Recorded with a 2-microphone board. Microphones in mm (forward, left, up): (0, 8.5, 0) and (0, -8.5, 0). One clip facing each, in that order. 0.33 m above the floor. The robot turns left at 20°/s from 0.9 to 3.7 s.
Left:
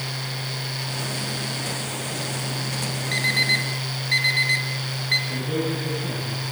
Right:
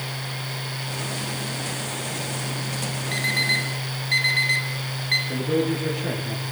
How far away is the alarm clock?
About 4 m.